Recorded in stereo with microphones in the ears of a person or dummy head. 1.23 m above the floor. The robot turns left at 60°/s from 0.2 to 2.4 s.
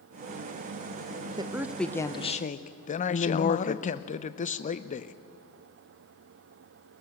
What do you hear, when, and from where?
1.4 s a woman speaking: 155° right, 0.7 m; by 3.9 s 140° left, 0.7 m
2.9 s a man speaking: 40° left (ahead or behind), 0.5 m